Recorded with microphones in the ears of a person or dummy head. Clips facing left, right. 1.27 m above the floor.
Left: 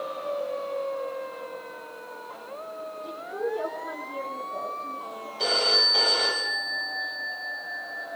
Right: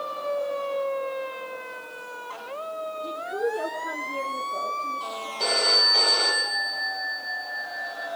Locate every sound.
3.0 s a woman speaking: 20° right (ahead or behind), 4.5 m; by 5.3 s centre (ahead or behind), 3.5 m
5.4 s a phone ringing: 5° left (ahead or behind), 4.5 m